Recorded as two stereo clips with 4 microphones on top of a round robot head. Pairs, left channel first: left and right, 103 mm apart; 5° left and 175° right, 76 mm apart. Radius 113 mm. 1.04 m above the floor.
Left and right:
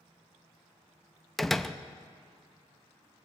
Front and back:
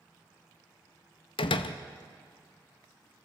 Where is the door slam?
5° left, 0.7 m.